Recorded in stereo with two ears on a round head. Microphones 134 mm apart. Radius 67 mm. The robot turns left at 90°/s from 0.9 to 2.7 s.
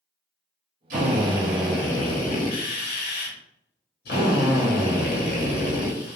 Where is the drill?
110° right, 1.5 m; by 6.2 s 90° left, 1.5 m.